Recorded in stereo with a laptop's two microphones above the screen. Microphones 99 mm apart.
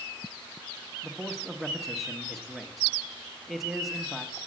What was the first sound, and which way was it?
A man speaking, centre (ahead or behind).